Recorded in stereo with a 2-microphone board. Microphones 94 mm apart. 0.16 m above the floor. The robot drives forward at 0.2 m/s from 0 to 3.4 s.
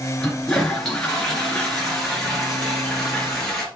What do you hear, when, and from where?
0.2 s a toilet flushing: 5° left (ahead or behind), 2 m